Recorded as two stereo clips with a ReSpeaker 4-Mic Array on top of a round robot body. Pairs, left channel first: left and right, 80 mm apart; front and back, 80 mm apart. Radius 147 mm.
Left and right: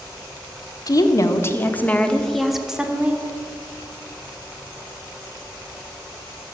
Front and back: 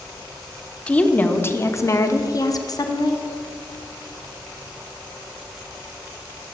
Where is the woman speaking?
70° left, 1.9 m; by 3.2 s 20° right, 2.5 m.